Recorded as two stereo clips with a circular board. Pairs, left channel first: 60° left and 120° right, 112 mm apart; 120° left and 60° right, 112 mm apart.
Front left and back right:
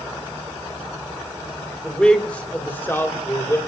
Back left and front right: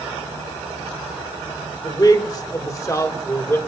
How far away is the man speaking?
About 1.8 m.